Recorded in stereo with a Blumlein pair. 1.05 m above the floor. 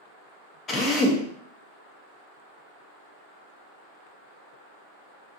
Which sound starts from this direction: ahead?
A drill, at 0.7 s.